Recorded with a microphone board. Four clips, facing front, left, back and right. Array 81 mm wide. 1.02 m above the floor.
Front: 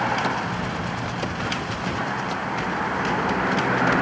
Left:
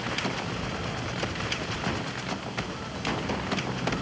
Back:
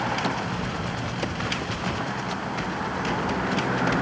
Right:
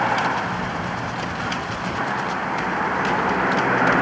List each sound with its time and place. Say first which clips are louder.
0.0 s a vehicle: right 11 dB, front 3 dB; 75° right